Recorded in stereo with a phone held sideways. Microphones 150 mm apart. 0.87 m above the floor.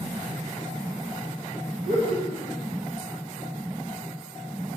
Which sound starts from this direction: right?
Laughter, at 1.8 s.